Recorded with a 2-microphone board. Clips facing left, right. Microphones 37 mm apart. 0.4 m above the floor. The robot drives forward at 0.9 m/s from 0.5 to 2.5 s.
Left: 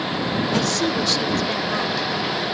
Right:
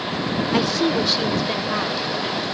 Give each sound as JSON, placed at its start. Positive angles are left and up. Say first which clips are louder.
{"t": 0.5, "sound": "a woman speaking", "louder": "right 4 dB", "side_deg": -20}